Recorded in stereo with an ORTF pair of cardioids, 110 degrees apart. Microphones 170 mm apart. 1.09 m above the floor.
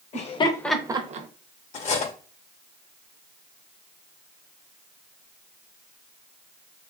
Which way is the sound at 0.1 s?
45° left.